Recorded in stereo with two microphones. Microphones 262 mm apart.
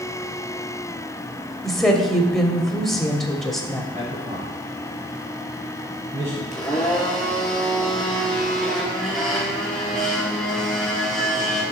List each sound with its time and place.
1.6 s a woman speaking: centre (ahead or behind), 1.0 m
3.9 s a man speaking: 30° right (ahead or behind), 2.5 m
6.5 s a blender: centre (ahead or behind), 2.5 m